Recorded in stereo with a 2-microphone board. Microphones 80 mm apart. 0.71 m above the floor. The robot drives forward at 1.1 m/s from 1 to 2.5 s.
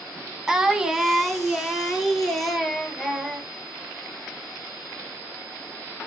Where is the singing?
10° right (ahead or behind), 1.2 m; by 3.5 s 5° right (ahead or behind), 3 m.